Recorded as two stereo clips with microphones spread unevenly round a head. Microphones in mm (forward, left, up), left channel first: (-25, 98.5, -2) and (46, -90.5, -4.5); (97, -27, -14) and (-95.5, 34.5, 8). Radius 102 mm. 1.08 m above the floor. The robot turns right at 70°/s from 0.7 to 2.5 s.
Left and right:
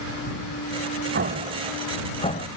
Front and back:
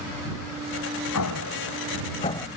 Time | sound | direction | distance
1.1 | an explosion | 30° right | ?